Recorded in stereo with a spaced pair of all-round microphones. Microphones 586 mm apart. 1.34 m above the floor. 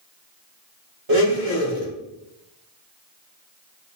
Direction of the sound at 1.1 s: 55° right (ahead or behind).